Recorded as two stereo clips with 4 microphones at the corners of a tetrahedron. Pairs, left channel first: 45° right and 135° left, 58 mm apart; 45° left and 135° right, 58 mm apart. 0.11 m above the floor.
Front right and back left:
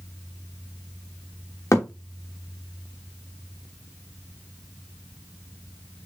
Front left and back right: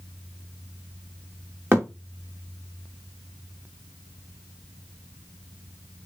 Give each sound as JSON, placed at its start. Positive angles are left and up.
{"t": 1.7, "sound": "a thud", "azimuth_deg": -80, "distance_m": 3.0}